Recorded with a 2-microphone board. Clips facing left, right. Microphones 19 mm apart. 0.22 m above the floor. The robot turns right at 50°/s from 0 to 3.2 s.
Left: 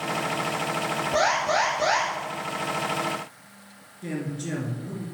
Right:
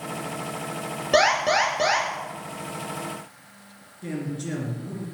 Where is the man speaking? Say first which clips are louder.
Even; centre (ahead or behind), 3.5 m.